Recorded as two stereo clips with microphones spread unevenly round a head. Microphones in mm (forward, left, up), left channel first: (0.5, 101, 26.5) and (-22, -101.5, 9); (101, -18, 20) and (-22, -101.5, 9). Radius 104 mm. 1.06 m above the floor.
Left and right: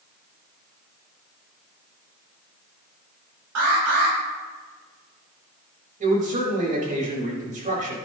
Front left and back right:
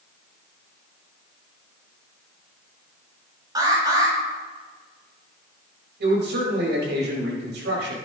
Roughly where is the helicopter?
I don't hear a helicopter.